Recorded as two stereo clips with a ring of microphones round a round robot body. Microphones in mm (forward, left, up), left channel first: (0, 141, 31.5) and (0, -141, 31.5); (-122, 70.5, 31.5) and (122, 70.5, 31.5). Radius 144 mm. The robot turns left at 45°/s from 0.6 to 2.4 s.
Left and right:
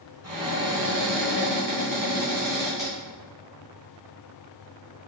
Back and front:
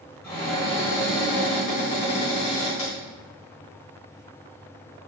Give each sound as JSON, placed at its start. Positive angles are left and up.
{"t": 0.2, "sound": "a cupboard door", "azimuth_deg": -95, "distance_m": 1.9}